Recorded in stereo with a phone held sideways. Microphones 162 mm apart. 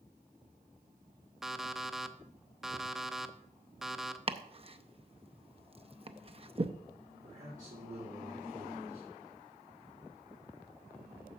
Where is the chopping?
35° right (ahead or behind), 0.6 m.